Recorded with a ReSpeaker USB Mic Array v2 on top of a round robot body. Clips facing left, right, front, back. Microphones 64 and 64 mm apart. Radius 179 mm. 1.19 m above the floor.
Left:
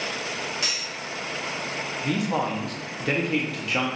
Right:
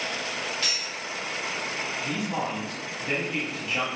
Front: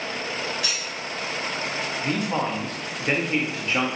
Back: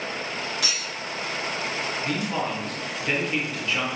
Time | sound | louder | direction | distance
0.6 | cutlery clinking | left 1 dB, even | 160° left | 0.8 m
2.0 | a man speaking | left 6 dB, front 3 dB | 65° left | 1.0 m